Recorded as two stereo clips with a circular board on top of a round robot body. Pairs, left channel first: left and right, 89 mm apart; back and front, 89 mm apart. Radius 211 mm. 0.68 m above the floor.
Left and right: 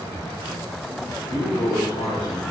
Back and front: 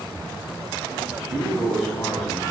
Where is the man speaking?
90° left, 4 m.